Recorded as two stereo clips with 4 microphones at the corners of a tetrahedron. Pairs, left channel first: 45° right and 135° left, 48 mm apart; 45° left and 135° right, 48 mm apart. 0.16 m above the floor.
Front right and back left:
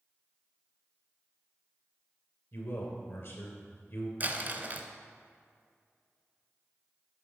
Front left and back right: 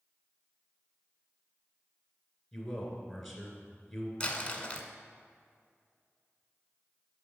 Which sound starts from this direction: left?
Crumpling, at 4.2 s.